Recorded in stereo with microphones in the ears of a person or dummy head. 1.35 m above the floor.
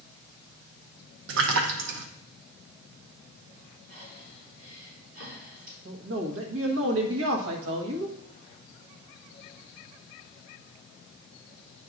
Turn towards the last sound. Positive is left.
turn(degrees=-75)  # may be behind; listen again after turning